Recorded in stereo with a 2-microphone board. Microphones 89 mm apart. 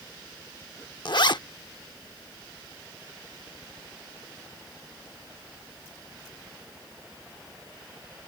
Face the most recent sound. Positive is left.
turn(degrees=60)  # may be behind; listen again after turning